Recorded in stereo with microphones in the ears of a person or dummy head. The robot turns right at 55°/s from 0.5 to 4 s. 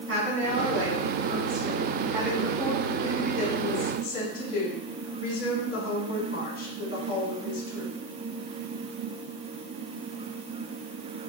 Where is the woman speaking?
100° right, 2 m; by 7.9 s 90° left, 2 m.